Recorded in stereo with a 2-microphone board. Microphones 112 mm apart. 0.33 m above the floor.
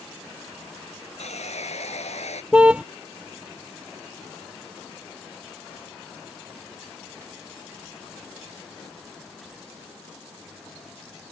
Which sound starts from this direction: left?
Sawing, at 1.2 s.